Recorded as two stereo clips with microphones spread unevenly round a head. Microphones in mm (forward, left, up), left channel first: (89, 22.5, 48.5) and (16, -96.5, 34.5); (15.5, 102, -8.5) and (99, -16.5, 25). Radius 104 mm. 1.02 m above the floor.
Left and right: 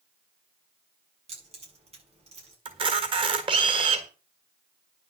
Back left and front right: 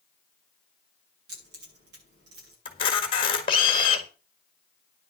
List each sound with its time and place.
1.3 s keys jangling: 80° right, 7.5 m
2.6 s a camera shutter: 175° right, 1.5 m